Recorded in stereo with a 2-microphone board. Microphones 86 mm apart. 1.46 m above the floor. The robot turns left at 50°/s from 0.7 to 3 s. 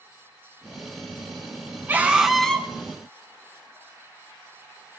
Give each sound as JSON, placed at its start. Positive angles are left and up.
{"t": 1.9, "sound": "a scream", "azimuth_deg": -155, "distance_m": 4.0}